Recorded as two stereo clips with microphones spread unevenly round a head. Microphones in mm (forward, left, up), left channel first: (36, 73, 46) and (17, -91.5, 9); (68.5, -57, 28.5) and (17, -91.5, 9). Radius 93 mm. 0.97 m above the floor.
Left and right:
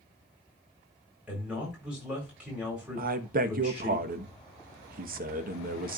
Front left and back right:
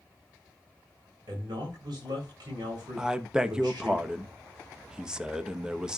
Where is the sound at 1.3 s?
Straight behind, 4 m.